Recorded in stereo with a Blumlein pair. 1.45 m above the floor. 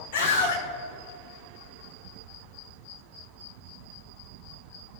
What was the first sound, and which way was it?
A scream, 50° left.